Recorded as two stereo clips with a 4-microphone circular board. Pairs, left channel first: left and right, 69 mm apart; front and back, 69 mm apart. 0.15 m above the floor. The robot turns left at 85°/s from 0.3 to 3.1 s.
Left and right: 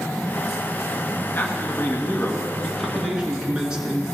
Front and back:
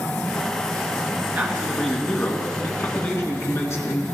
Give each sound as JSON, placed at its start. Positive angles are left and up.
{"t": 1.4, "sound": "a man speaking", "azimuth_deg": 130, "distance_m": 2.0}